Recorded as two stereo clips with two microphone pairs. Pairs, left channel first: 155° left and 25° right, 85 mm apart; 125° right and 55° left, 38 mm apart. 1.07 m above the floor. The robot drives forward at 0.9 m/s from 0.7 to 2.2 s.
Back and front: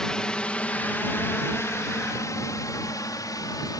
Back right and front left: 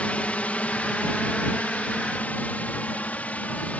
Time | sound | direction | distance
0.0 | a drone | 125° right | ?